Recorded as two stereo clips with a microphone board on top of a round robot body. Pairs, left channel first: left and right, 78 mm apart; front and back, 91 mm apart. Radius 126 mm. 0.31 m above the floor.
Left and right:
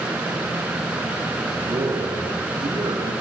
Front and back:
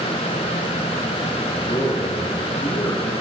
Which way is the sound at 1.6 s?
60° right.